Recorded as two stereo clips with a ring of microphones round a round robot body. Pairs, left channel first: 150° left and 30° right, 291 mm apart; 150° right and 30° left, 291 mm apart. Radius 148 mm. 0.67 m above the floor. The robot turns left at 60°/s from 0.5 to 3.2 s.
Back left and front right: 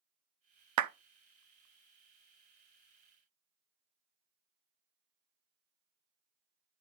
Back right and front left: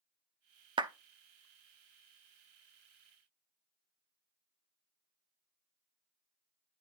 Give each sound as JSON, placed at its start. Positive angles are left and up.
{"t": 0.8, "sound": "a clap", "azimuth_deg": -40, "distance_m": 0.6}